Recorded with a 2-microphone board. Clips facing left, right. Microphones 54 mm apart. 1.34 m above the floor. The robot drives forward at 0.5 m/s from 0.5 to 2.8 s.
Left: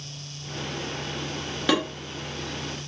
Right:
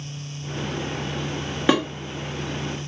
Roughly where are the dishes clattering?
Centre.